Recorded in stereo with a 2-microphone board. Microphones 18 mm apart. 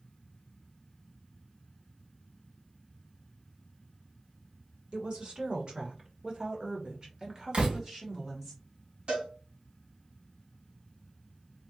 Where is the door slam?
75° right (ahead or behind), 1.8 m.